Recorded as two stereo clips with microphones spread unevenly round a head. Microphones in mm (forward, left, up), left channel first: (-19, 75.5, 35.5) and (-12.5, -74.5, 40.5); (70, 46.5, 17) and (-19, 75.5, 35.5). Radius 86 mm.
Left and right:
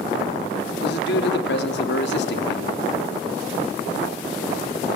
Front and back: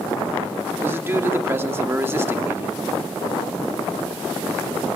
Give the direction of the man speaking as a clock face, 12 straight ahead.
9 o'clock.